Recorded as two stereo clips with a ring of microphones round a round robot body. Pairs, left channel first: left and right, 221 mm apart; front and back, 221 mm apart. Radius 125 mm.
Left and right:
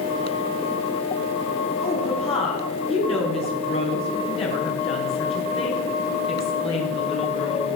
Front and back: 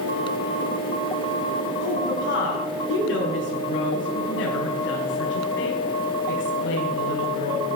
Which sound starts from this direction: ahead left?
A woman speaking, at 1.8 s.